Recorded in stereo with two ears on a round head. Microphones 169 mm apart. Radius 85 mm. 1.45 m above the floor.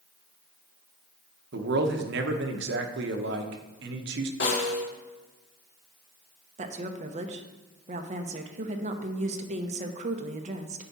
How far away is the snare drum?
About 1.9 m.